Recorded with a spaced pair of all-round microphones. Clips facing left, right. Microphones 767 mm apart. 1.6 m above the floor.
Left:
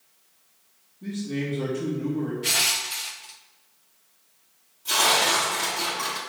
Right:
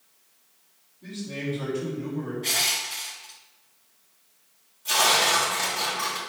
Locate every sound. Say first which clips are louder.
1.0 s a man speaking: left 4 dB; 70° left (ahead or behind), 3.5 m
2.4 s crushing: left 1 dB; 45° left (ahead or behind), 0.9 m
4.8 s tearing paper: left 1 dB; 20° right (ahead or behind), 3 m